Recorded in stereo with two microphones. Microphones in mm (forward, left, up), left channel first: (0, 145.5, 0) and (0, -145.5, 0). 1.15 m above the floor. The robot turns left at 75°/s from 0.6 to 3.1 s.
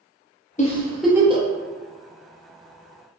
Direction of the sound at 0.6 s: 25° left (ahead or behind).